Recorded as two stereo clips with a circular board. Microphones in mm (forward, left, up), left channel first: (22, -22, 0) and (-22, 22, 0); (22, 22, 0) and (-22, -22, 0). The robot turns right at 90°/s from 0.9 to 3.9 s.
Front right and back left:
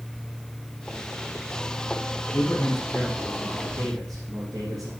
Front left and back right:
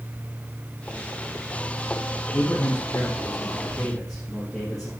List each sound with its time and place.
2.3 s a man speaking: 10° right, 3 m; by 4.9 s 135° left, 3 m